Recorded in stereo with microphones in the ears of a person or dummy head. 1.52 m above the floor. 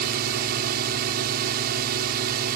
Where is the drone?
50° right (ahead or behind).